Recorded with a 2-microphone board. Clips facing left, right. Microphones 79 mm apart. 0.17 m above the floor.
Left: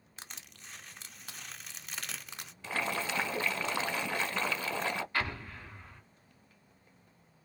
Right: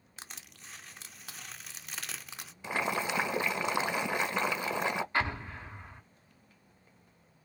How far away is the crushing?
About 0.5 m.